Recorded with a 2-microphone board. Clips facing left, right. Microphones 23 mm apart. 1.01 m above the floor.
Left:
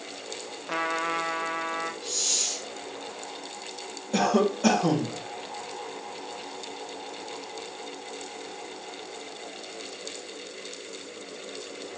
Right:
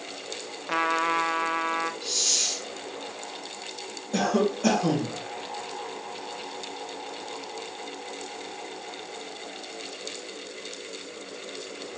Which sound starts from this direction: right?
A hiss, at 2.0 s.